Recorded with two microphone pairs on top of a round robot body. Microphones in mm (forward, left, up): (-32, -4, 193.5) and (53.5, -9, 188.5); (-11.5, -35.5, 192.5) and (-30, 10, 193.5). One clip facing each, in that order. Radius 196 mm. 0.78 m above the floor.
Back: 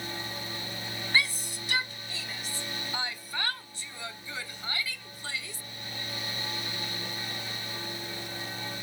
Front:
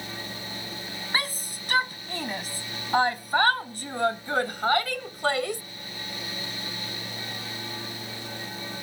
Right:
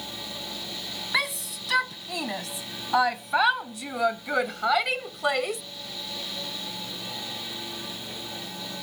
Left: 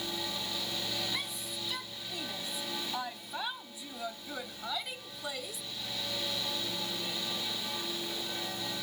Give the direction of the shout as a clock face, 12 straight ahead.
2 o'clock.